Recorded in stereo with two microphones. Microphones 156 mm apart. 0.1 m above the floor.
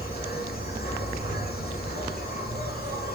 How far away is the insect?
About 5 m.